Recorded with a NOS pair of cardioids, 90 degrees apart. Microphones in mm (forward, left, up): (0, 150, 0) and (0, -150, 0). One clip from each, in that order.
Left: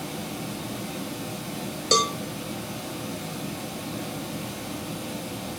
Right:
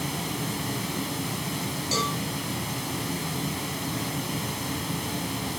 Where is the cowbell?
65° left, 1.0 m.